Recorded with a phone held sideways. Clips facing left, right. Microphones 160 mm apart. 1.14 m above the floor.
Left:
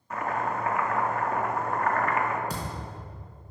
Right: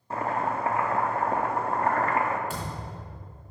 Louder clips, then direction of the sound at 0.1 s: Right 1 dB; 30° right (ahead or behind).